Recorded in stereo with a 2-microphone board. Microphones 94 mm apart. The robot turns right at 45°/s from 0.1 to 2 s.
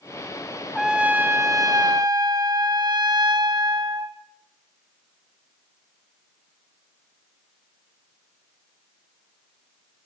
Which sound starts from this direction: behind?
A trumpet, at 0.8 s.